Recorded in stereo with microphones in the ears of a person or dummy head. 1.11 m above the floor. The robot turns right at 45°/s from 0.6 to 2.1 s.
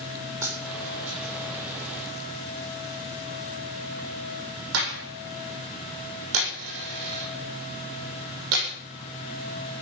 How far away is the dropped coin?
About 8 m.